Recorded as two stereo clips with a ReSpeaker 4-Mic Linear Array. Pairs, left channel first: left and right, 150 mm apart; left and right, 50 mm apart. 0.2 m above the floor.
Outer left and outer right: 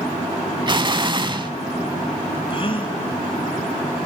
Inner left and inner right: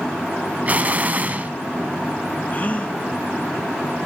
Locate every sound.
0.7 s an explosion: 35° right (ahead or behind), 0.6 m
2.5 s a gasp: 40° left (ahead or behind), 1.3 m